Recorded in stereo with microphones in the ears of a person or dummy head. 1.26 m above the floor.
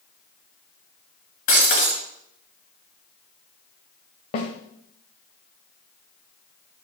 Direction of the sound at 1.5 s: 40° left (ahead or behind).